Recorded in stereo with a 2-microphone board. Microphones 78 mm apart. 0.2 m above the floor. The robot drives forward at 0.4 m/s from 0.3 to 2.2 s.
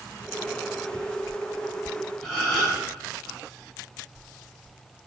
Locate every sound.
2.2 s a gasp: 5° left (ahead or behind), 1.8 m